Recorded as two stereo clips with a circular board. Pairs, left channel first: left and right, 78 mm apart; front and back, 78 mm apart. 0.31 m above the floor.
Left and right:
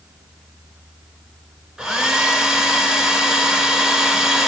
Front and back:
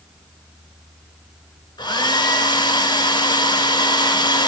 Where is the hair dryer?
5° right, 0.7 m.